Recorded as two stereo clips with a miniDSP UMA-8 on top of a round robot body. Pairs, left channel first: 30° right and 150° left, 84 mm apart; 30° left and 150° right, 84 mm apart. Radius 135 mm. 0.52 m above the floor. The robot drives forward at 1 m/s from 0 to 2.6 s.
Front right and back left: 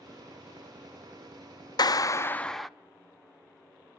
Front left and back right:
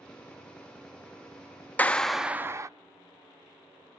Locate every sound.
1.8 s a clap: 35° right, 0.9 m; by 2.7 s 115° right, 0.8 m